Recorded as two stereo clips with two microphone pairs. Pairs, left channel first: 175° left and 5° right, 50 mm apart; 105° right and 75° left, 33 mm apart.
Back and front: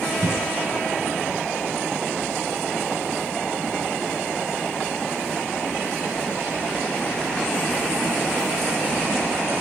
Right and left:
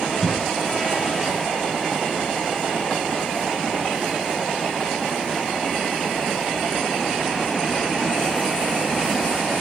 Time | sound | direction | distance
0.2 | a cough | 30° right | 2.5 m